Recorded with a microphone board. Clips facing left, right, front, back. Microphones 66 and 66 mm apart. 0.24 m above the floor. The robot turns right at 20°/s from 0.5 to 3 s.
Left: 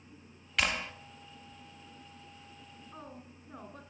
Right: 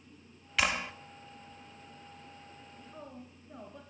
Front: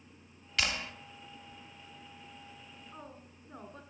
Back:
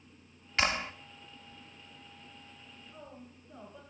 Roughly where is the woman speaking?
Ahead left.